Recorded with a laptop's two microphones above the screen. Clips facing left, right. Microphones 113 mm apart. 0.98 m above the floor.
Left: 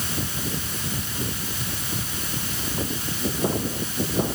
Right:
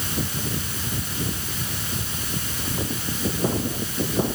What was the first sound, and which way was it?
Only background noise.